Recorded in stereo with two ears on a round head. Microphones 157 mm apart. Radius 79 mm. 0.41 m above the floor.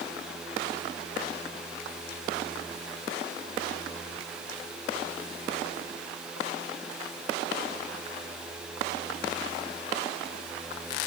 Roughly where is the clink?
I don't hear a clink.